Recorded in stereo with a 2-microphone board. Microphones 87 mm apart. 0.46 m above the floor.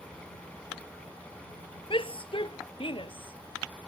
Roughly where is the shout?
Left.